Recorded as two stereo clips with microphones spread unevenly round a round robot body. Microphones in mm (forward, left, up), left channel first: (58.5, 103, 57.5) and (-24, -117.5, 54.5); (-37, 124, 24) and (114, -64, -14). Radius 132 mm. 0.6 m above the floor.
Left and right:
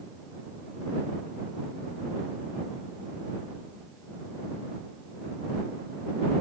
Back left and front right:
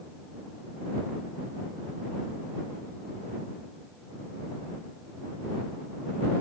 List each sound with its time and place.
Only background noise.